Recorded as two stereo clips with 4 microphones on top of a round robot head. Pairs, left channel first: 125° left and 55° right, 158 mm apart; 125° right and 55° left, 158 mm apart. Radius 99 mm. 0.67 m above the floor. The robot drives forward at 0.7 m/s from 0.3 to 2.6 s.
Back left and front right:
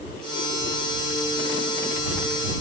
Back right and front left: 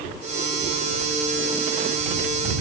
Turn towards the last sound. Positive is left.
No sound to turn to.